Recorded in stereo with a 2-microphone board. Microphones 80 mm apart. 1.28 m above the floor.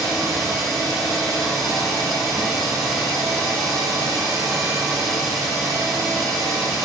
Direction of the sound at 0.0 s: 5° right (ahead or behind).